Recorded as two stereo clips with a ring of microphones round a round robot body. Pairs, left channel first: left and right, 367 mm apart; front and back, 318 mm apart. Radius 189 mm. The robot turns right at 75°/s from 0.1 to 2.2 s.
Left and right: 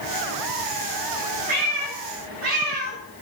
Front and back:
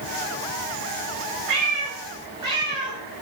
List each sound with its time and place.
1.5 s a cat meowing: 160° right, 1.2 m; by 3.0 s 105° right, 1.2 m